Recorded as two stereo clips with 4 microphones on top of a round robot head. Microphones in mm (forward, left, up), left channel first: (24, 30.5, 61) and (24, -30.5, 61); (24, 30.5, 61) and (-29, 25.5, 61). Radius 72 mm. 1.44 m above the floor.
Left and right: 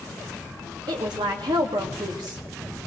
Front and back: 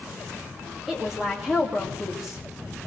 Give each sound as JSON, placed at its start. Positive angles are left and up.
{"t": 0.9, "sound": "a woman speaking", "azimuth_deg": -90, "distance_m": 2.0}